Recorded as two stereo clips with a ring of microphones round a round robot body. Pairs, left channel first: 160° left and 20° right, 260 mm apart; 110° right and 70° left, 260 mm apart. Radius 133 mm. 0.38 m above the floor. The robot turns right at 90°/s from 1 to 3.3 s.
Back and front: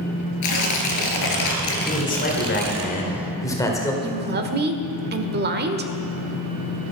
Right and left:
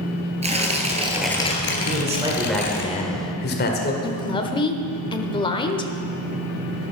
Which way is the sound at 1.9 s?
100° left.